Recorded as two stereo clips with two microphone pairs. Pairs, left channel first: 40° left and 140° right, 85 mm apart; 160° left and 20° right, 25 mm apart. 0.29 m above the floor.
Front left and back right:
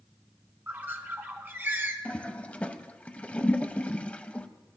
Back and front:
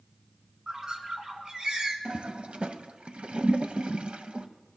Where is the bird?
75° right, 1.1 m.